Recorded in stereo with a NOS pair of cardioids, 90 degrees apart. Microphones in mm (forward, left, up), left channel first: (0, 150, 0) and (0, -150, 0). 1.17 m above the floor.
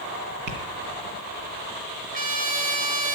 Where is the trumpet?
25° right, 3 m.